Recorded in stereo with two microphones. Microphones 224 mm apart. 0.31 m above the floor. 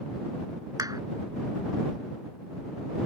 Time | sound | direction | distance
0.8 | a clap | 15° right (ahead or behind) | ?